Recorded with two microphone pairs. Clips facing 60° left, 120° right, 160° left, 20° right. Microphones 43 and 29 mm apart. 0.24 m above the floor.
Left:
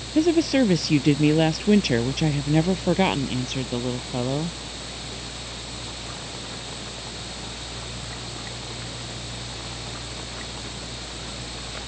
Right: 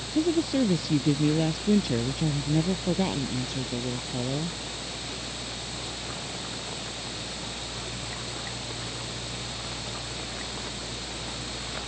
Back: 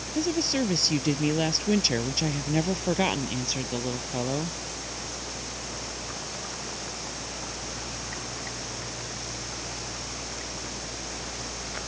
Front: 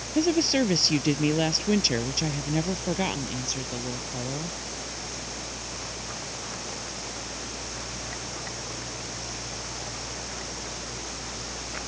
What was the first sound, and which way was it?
A woman speaking, 45° left.